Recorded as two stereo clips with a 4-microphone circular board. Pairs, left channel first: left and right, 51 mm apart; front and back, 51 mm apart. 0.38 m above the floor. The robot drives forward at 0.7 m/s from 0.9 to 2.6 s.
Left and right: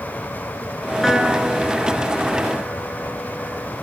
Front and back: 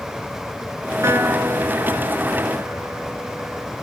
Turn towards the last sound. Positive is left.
turn(degrees=180)